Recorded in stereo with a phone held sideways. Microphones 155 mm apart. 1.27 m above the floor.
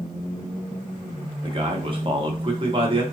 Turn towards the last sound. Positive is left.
turn(degrees=-35)  # may be behind; listen again after turning